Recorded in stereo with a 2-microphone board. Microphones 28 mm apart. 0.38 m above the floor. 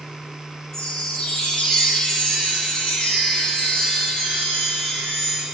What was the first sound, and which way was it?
A chime, 30° left (ahead or behind).